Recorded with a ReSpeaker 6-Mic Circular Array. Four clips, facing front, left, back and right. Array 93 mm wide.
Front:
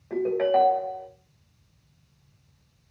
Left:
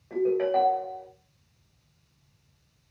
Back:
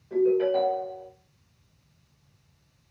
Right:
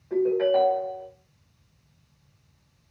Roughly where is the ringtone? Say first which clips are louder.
Right 3 dB, even; ahead.